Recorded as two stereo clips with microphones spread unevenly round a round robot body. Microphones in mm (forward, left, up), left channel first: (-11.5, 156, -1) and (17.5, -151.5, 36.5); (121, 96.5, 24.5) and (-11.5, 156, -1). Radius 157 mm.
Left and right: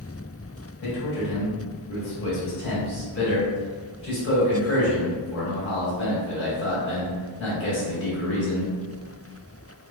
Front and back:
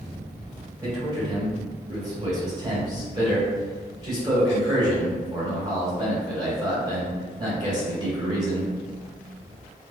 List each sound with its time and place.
0.8 s a man speaking: 115° left, 1.6 m